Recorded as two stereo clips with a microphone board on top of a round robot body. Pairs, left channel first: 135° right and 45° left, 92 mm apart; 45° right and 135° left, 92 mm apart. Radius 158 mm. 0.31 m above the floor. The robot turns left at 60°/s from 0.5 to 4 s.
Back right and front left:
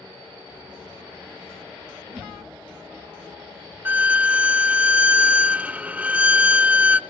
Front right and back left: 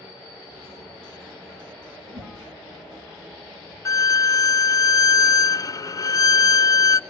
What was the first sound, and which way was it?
A whoosh, 130° left.